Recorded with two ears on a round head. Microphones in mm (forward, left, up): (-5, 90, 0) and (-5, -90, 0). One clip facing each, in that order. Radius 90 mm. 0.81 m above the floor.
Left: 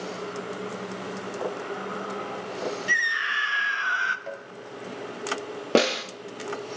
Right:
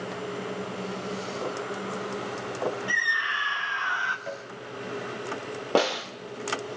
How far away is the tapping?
About 2.5 m.